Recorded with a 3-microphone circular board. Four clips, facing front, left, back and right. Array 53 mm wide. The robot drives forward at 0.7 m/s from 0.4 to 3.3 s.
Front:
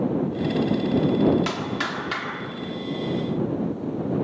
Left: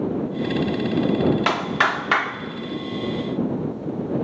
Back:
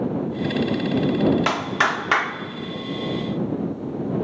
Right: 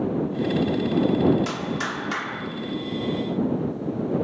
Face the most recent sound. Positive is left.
turn(degrees=145)